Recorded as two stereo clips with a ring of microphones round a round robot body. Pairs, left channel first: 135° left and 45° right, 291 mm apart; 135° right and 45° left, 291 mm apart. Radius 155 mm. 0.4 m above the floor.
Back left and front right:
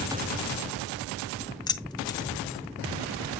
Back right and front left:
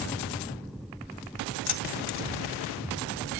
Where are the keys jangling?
150° right, 1.1 m.